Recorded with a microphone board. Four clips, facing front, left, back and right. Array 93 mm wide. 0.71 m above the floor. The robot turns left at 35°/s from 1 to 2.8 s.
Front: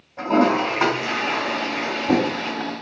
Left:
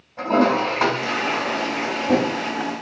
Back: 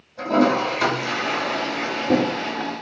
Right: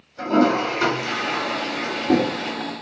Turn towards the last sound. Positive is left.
turn(degrees=-20)